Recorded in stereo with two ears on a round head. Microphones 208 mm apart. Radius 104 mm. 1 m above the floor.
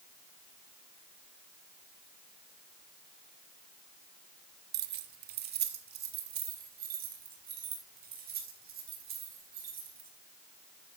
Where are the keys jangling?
45° right (ahead or behind), 0.9 m; by 10.1 s 40° right (ahead or behind), 8.5 m.